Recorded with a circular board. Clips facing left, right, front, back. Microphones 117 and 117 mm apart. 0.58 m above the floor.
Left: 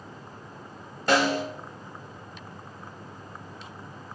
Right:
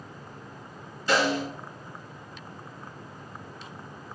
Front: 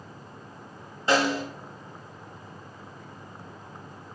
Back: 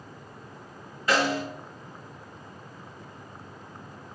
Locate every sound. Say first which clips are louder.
1.1 s a snare drum: left 2 dB, front 1 dB; 60° left, 1.2 m